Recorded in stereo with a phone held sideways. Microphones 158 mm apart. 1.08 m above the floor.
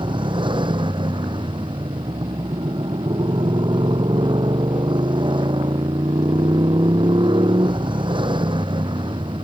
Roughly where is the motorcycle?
Right.